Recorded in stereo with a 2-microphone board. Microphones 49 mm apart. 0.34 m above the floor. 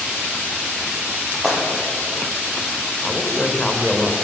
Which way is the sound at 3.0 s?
10° left (ahead or behind).